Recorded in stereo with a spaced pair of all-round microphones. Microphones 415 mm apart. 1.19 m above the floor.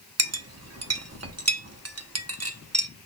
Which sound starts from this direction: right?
A clink, at 0.2 s.